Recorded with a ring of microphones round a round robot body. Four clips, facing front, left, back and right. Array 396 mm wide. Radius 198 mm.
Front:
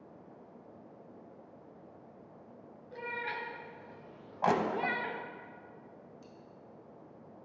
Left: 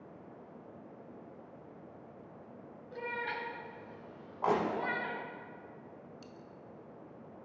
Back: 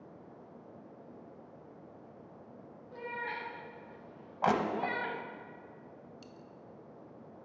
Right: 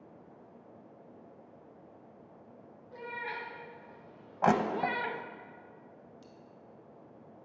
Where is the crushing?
100° right, 0.8 m.